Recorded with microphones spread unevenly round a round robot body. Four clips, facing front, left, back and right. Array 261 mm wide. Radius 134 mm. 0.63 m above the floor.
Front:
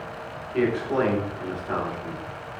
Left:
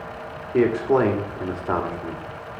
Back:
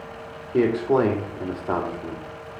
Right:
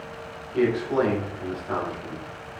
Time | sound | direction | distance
0.5 | a man speaking | 125° left | 2 m